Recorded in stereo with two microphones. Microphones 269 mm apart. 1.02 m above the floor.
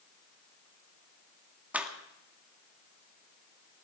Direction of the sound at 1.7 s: 5° right (ahead or behind).